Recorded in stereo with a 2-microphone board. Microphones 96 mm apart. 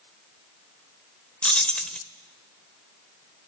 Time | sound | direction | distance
1.4 | keys jangling | 10° left (ahead or behind) | 0.7 m